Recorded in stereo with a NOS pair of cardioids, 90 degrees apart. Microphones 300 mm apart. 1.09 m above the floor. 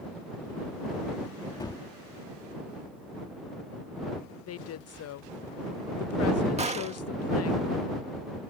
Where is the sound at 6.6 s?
20° right.